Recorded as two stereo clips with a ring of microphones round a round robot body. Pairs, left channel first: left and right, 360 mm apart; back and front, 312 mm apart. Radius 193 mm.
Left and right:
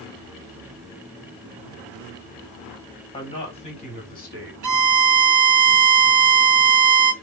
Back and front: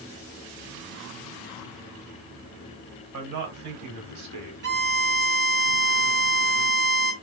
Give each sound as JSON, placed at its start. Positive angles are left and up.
{"t": 3.1, "sound": "a man speaking", "azimuth_deg": 10, "distance_m": 2.5}
{"t": 4.6, "sound": "a violin", "azimuth_deg": -55, "distance_m": 0.8}